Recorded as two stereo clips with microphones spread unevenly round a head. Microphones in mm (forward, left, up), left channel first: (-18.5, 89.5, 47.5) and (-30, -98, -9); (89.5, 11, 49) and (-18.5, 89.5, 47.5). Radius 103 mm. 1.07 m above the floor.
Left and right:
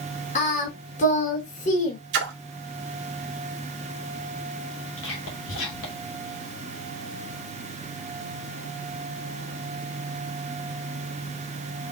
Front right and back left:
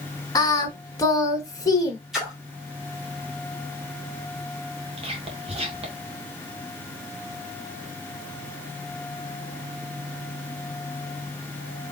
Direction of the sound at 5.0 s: 105° left.